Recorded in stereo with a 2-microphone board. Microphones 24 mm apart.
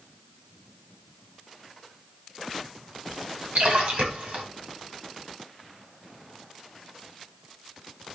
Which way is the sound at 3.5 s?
65° right (ahead or behind).